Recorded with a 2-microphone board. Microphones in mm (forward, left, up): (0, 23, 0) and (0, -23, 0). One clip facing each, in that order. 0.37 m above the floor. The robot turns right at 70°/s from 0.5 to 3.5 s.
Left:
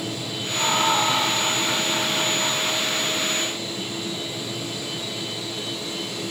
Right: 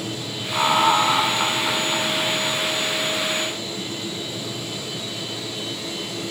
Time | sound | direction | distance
0.5 | laughter | 120° right | 3 m